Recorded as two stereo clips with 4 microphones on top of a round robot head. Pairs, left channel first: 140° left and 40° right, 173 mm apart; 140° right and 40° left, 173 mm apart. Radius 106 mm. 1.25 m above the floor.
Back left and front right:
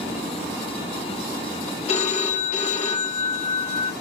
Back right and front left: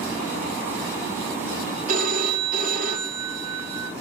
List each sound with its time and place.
1.9 s a phone ringing: 85° left, 0.8 m